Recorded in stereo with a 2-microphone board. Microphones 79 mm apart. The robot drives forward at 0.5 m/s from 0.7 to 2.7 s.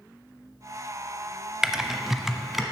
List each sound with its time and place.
1.6 s typing on a keyboard: 5° right (ahead or behind), 0.5 m